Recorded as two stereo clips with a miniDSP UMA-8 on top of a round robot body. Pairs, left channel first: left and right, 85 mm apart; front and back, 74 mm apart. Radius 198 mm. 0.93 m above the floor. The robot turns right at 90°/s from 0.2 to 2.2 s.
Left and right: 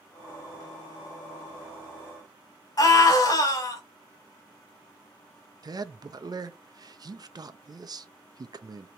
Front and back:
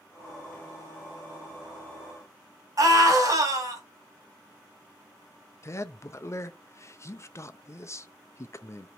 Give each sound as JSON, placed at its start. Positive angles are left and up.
{"t": 2.8, "sound": "a scream", "azimuth_deg": 135, "distance_m": 1.7}
{"t": 5.6, "sound": "a man speaking", "azimuth_deg": -50, "distance_m": 0.7}